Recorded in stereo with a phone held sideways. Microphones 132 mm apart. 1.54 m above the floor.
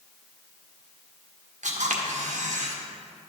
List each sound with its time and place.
1.6 s a camera shutter: 85° right, 1.6 m